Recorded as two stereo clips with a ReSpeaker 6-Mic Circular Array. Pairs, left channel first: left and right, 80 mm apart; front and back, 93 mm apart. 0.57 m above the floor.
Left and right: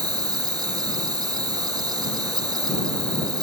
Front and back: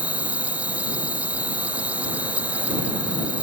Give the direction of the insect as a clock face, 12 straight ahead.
4 o'clock.